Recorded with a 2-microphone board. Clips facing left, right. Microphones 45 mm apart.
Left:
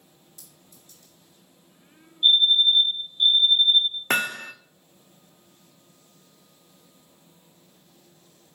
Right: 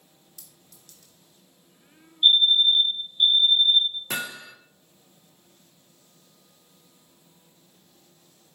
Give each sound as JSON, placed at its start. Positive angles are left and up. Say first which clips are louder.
{"t": 0.4, "sound": "a clink", "louder": "left 2 dB", "side_deg": -80, "distance_m": 1.6}
{"t": 2.2, "sound": "a fire alarm", "louder": "even", "side_deg": -70, "distance_m": 3.5}
{"t": 4.1, "sound": "hammering", "louder": "left 7 dB", "side_deg": 55, "distance_m": 0.6}